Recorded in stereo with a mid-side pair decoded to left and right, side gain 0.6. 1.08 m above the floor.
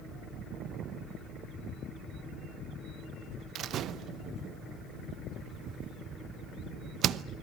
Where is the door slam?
55° right, 0.6 m.